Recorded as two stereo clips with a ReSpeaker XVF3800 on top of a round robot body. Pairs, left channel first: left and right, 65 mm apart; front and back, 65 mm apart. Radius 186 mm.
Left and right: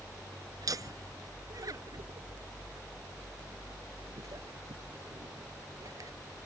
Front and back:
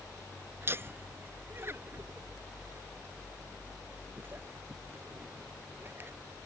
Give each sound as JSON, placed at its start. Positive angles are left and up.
{"t": 0.6, "sound": "laughter", "azimuth_deg": -125}